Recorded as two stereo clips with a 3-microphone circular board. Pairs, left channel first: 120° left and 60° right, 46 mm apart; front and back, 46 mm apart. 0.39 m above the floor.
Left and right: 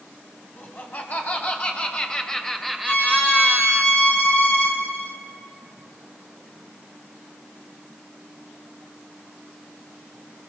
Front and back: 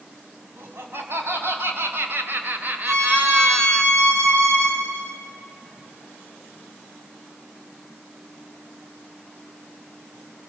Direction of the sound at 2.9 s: 170° left.